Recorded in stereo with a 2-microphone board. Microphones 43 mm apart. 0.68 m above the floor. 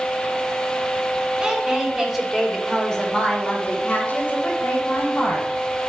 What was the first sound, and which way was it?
A woman speaking, 15° right (ahead or behind).